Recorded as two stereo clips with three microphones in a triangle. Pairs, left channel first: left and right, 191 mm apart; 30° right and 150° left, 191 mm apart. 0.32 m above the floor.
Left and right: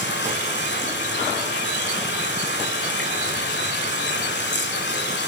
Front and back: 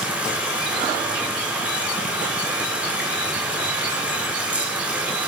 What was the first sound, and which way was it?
Running water, 65° left.